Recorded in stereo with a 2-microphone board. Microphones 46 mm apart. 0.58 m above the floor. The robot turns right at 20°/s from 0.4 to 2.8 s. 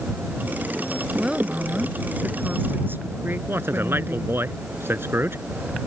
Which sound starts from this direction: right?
A man speaking, at 3.5 s.